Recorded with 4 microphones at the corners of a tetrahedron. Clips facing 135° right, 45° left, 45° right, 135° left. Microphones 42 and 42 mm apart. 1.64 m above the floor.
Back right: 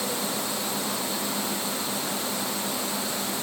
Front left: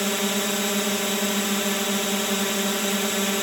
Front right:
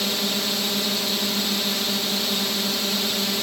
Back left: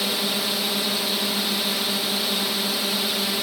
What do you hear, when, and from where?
0.0 s a drone: 50° left